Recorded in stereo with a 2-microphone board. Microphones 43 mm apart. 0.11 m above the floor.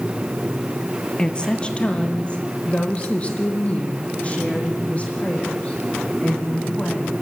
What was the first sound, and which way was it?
A woman speaking, 20° left (ahead or behind).